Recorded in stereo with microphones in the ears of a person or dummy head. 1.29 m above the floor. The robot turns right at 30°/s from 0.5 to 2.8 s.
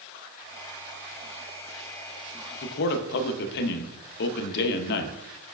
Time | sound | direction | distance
2.6 | a man speaking | 55° left (ahead or behind) | 0.5 m